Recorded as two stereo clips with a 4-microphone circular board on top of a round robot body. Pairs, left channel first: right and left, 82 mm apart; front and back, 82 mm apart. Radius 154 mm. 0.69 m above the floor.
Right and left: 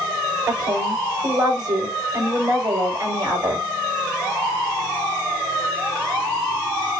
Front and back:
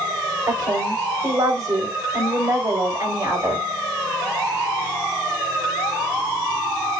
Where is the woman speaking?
130° left, 4.5 m.